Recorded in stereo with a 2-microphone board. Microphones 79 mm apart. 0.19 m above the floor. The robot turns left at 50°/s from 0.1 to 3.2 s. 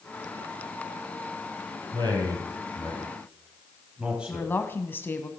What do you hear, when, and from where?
1.9 s a man speaking: 70° right (ahead or behind), 4.5 m; by 4.5 s 15° right (ahead or behind), 4.5 m
4.3 s a woman speaking: 25° left (ahead or behind), 1.1 m